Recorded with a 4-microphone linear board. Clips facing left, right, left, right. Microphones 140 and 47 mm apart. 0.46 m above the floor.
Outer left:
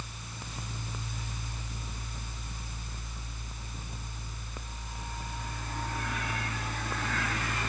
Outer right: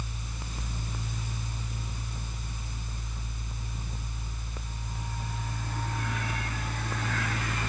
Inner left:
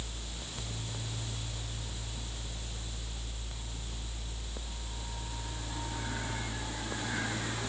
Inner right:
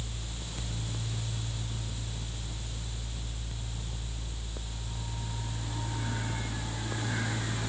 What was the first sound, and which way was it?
Only background noise.